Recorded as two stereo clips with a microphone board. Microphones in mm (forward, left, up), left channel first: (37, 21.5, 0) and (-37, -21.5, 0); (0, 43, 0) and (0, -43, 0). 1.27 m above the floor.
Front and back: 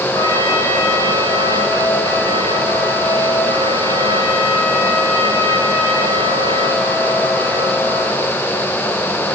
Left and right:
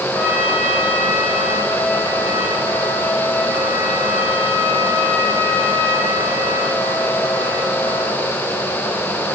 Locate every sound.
0.1 s a trumpet: 15° right, 6.5 m